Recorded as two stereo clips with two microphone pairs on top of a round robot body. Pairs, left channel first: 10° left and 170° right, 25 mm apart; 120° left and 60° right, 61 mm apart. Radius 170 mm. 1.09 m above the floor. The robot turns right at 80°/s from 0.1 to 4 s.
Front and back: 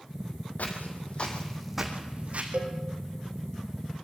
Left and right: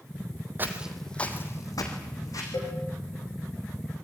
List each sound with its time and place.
0.6 s footsteps: 5° right, 2.5 m; by 2.4 s 165° left, 3.5 m
2.5 s a cowbell: 150° left, 7 m; by 2.8 s 170° left, 7 m